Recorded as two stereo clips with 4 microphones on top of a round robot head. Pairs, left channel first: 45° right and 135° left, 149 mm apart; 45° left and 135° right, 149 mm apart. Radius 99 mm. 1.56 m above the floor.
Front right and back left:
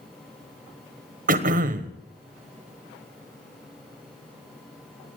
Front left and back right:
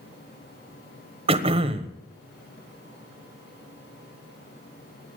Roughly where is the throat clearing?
Behind.